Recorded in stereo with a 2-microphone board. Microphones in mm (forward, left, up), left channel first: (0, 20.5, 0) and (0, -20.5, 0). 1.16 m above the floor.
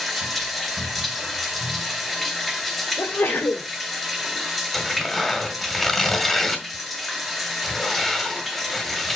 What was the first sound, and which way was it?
Running water, centre (ahead or behind).